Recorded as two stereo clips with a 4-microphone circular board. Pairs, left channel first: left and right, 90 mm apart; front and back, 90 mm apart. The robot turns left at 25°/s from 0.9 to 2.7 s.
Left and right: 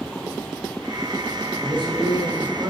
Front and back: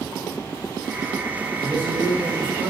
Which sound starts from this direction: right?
A man speaking, at 1.6 s.